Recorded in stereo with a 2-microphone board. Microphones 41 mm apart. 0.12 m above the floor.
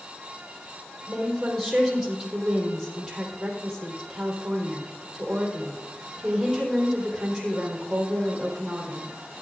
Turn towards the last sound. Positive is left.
turn(degrees=-10)  # may be behind; listen again after turning